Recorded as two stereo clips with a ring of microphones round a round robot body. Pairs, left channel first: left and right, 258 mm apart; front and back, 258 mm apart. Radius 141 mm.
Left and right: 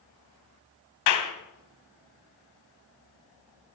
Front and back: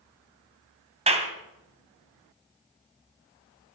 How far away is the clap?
About 2.5 m.